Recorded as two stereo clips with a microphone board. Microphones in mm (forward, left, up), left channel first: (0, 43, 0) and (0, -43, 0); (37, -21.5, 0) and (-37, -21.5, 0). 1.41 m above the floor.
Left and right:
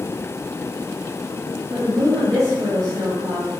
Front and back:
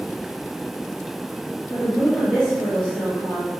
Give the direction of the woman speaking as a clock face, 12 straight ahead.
3 o'clock.